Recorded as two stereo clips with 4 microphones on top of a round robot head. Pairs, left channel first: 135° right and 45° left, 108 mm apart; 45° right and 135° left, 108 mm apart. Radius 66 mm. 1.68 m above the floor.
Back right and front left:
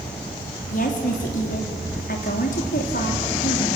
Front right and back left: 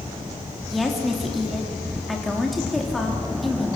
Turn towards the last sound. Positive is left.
turn(degrees=-135)